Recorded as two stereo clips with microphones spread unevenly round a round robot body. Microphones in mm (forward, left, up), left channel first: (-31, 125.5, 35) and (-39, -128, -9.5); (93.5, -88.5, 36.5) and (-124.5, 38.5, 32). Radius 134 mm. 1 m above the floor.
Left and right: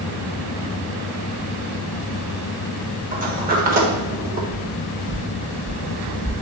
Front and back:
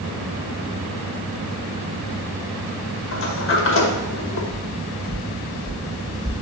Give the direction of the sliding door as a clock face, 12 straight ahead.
2 o'clock.